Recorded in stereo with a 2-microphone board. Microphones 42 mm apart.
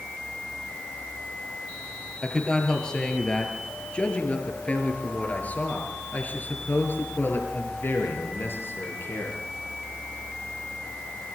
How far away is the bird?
I don't hear a bird.